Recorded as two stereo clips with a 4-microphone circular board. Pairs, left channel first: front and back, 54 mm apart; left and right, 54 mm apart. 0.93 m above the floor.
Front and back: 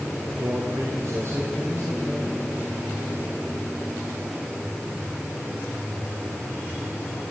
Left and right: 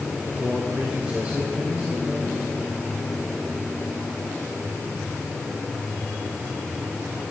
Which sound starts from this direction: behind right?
A man speaking, at 0.4 s.